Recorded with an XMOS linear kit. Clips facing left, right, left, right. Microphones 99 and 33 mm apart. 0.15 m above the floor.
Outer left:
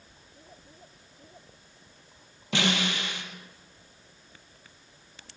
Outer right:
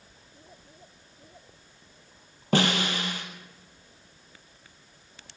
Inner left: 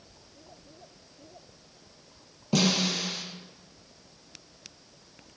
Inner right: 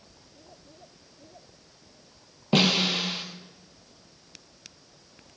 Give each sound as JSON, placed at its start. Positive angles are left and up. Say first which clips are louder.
{"t": 2.5, "sound": "a snare drum", "louder": "outer right 3 dB, inner right 3 dB", "side_deg": -45, "distance_m": 3.0}